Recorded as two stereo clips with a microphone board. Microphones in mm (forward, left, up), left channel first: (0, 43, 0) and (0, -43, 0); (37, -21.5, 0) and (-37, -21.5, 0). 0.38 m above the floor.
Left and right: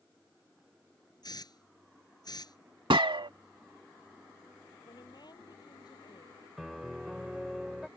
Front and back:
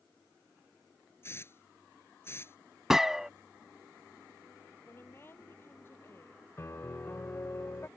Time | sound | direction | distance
1.2 | a hiss | 55° left | ?
2.9 | a gunshot | 100° right | ?
4.8 | a woman speaking | 55° left | ?
6.6 | a piano | 5° right | ?